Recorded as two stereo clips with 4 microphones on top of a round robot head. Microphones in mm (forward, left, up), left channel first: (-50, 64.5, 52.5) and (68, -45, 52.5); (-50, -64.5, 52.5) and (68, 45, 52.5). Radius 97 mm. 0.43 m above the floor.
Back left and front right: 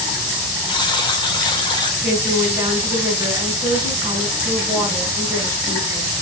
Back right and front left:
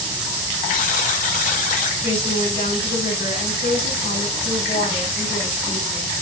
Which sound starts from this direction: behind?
A buzzer, at 0.7 s.